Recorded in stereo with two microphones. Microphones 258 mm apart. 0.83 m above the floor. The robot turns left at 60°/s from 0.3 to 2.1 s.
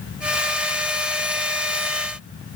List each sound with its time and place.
Only background noise.